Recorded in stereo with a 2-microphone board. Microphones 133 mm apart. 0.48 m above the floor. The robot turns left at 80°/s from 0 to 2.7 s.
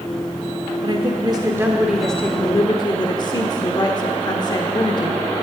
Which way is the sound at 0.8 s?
85° right.